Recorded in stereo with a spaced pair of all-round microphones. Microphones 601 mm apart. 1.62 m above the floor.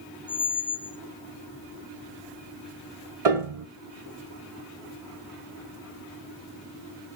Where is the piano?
75° right (ahead or behind), 1.2 m.